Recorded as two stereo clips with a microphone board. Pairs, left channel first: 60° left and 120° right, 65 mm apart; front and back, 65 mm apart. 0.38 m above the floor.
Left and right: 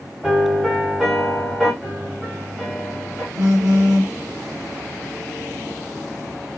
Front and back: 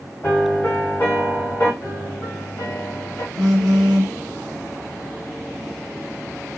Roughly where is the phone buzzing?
Right.